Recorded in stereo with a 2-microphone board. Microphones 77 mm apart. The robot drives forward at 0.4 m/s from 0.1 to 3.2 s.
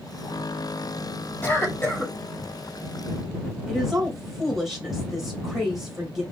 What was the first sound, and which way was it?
A cough, 25° left (ahead or behind).